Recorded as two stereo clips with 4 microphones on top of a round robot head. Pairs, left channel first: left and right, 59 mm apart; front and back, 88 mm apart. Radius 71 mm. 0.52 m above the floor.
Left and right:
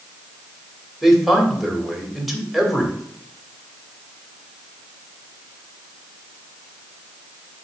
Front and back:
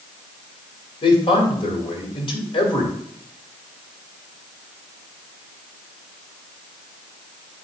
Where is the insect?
No insect in this recording.